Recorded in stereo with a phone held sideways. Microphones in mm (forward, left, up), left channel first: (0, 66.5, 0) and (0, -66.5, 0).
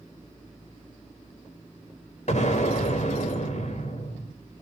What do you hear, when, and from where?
2.3 s an explosion: 60° left (ahead or behind), 1.9 m